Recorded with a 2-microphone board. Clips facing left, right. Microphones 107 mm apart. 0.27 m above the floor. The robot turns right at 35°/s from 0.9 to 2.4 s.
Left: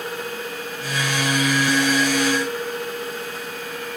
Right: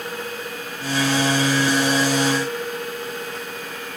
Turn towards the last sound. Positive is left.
No sound to turn to.